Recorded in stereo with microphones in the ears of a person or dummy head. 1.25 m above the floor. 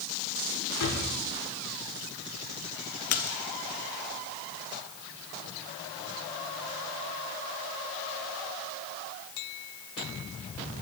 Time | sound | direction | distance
0.8 | a drawer | 80° left | 5 m
3.1 | a splash | 40° left (ahead or behind) | 1.0 m